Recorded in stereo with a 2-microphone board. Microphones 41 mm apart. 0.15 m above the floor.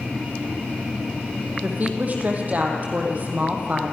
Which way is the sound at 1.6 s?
40° right (ahead or behind).